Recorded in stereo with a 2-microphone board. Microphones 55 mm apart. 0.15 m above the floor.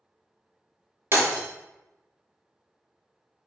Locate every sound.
1.1 s breaking glass: 45° right (ahead or behind), 1.4 m